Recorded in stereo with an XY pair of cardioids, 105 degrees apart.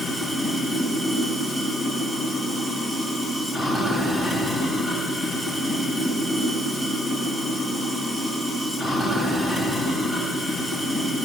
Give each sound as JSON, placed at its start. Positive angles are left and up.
{"t": 0.0, "sound": "running water", "azimuth_deg": -15, "distance_m": 9.5}